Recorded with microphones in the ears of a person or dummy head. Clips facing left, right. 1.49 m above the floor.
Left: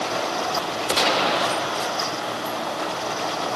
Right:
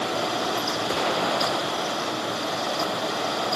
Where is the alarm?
I don't hear an alarm.